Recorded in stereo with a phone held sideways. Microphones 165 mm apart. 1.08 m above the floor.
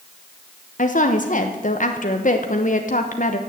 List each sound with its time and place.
0.8 s a woman speaking: 50° left (ahead or behind), 1.1 m